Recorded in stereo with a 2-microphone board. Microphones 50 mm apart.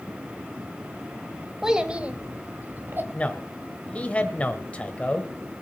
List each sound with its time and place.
1.6 s a child speaking: 10° right (ahead or behind), 1.3 m; by 3.0 s 45° right (ahead or behind), 1.5 m
3.1 s a man speaking: 25° left (ahead or behind), 1.3 m